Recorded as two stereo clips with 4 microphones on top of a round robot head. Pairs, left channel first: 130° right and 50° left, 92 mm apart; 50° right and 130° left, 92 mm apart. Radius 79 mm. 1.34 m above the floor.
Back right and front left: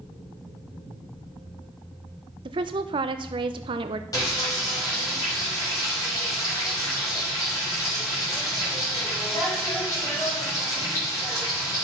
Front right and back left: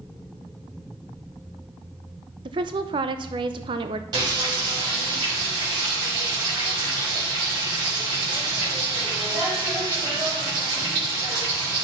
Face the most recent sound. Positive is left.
turn(degrees=175)